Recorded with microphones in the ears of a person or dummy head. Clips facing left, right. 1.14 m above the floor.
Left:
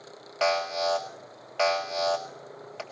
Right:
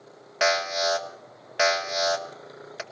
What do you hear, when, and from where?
0.4 s an alarm: 20° right (ahead or behind), 1.1 m